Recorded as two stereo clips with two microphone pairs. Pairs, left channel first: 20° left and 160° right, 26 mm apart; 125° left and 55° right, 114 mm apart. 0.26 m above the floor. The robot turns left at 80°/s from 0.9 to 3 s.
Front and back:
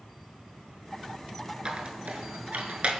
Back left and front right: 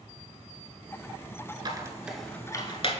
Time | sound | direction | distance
1.6 | a squeak | 100° right | 0.8 m